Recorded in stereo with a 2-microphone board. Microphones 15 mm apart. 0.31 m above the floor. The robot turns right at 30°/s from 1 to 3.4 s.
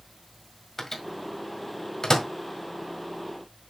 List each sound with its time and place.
0.8 s a microwave: 20° left (ahead or behind), 1.6 m; by 2.3 s 40° left (ahead or behind), 1.6 m